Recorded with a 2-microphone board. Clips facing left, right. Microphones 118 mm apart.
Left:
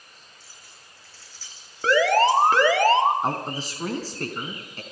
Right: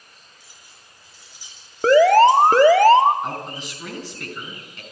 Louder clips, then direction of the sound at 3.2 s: Left 3 dB; 35° left (ahead or behind).